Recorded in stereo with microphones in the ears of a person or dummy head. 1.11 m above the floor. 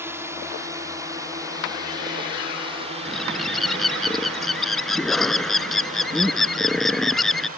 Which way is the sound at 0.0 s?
15° right (ahead or behind).